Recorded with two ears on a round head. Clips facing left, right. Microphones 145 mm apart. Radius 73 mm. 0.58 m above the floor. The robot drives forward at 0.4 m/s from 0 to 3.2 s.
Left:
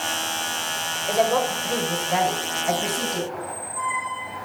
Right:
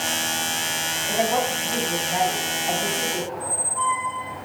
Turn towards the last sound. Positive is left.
turn(degrees=-25)  # may be behind; listen again after turning